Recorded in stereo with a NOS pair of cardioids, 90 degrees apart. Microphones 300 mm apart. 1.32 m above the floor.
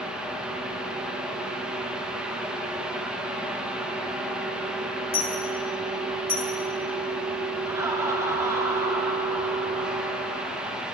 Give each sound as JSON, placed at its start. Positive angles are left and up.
{"t": 0.0, "sound": "a fan", "azimuth_deg": -5, "distance_m": 1.0}
{"t": 5.1, "sound": "a dropped coin", "azimuth_deg": 20, "distance_m": 3.5}
{"t": 7.7, "sound": "laughter", "azimuth_deg": -10, "distance_m": 1.7}